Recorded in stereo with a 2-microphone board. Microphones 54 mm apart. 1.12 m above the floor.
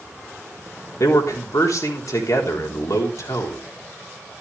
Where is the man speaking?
80° left, 3.5 m.